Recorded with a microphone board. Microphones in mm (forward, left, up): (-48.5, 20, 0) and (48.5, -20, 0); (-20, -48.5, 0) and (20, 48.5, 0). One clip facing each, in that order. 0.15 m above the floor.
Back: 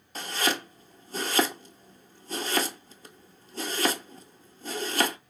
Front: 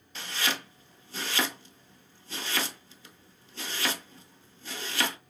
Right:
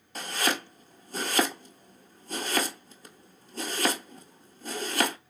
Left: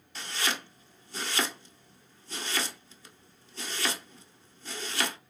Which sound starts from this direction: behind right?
Chopping, at 0.1 s.